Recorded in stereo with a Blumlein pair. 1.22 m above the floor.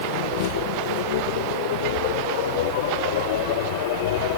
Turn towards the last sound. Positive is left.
turn(degrees=50)